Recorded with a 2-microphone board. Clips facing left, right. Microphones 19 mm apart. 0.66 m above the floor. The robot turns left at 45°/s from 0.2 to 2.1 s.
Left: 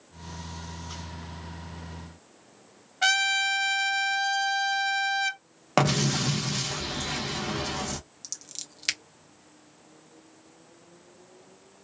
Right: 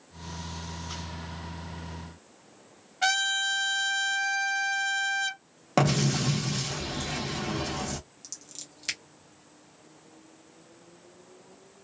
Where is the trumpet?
10° left (ahead or behind), 1.0 m.